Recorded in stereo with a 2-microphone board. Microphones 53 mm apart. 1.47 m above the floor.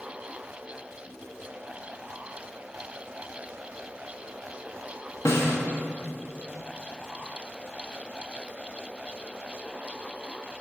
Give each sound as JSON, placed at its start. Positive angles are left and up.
{"t": 5.2, "sound": "a snare drum", "side_deg": 60, "distance_m": 1.1}